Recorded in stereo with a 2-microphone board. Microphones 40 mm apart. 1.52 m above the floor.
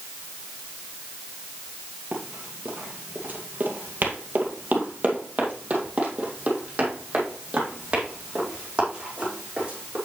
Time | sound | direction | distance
2.1 | running footsteps | 40° right (ahead or behind) | 2 m